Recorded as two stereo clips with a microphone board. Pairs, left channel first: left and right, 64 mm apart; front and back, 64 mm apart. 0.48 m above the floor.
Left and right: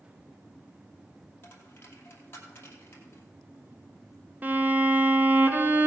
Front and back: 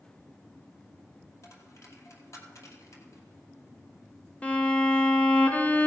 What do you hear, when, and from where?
1.4 s a dropped coin: 35° left, 2.5 m
4.4 s a violin: 55° right, 1.1 m